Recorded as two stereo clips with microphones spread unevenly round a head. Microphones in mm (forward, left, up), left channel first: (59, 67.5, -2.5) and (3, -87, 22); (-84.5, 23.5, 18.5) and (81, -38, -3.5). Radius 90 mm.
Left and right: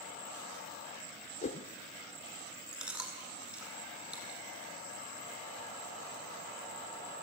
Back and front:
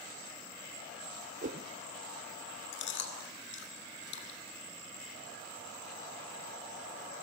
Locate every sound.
1.4 s a whoosh: 25° left, 0.7 m
2.7 s chewing: 170° left, 2 m